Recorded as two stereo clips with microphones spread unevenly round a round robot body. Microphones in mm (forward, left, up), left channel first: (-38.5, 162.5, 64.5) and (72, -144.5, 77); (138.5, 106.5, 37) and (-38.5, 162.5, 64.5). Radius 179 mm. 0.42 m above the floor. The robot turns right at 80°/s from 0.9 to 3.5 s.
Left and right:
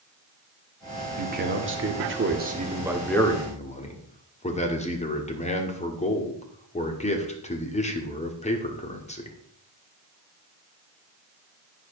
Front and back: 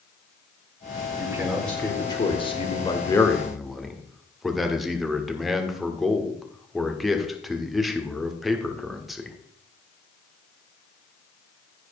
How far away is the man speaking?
About 1.5 m.